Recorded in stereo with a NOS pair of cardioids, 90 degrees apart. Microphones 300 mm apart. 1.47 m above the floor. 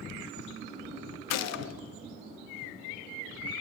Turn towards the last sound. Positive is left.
turn(degrees=60)